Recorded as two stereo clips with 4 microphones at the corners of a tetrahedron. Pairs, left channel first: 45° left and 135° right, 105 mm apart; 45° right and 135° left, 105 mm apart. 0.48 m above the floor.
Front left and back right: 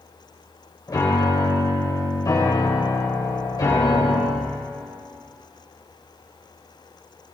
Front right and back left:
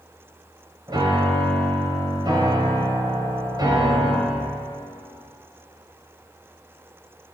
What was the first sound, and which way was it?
A piano, 95° left.